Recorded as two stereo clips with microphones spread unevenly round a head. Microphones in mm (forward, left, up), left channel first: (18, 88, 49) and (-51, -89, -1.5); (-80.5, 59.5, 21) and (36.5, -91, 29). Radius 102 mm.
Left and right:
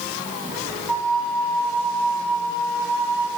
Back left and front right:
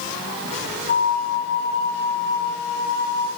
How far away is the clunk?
I don't hear a clunk.